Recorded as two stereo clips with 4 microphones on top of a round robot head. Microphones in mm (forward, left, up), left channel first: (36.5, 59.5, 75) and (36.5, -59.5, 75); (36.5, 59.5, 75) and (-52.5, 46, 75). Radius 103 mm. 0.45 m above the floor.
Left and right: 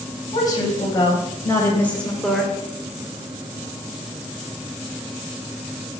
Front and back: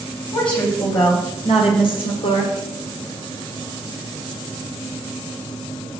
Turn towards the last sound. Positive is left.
turn(degrees=-5)